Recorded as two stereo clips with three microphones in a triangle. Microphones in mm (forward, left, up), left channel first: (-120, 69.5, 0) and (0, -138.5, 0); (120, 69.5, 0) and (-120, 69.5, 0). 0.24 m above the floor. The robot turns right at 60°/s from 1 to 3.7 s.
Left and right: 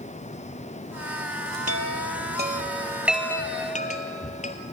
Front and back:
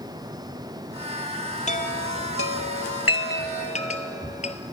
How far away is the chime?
About 1.1 m.